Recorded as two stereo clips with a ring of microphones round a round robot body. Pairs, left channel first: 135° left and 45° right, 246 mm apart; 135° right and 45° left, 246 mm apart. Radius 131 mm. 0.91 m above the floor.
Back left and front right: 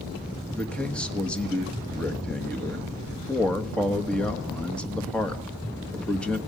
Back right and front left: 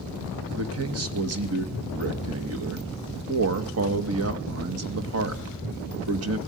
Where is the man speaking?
50° left, 1.5 m.